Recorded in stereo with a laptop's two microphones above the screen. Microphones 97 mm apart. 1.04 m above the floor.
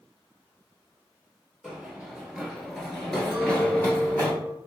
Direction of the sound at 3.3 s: Centre (ahead or behind).